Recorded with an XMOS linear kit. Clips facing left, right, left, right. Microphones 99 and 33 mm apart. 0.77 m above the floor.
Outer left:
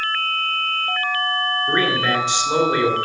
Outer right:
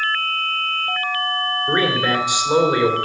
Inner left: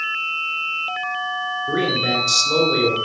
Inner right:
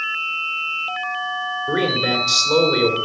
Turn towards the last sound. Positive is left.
turn(degrees=-10)  # may be behind; listen again after turning